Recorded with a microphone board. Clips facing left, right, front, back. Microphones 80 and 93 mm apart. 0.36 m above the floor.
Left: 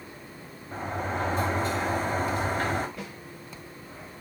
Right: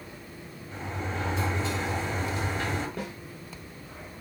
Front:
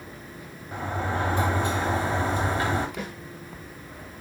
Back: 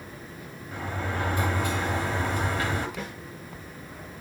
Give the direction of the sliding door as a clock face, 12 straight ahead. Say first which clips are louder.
Left 4 dB, front 3 dB; 10 o'clock.